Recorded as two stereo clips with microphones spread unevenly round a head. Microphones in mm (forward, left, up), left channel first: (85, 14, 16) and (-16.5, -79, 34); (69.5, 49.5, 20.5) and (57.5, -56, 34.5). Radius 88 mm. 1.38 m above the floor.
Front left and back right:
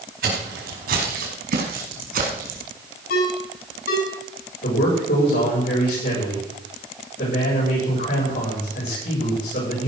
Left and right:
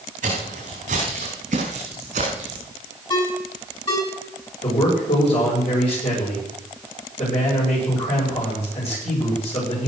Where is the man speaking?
60° left, 8.5 m.